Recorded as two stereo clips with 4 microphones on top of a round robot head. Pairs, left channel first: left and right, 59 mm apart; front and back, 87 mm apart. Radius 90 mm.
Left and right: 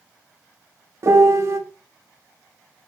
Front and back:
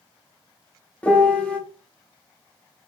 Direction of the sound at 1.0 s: 70° right.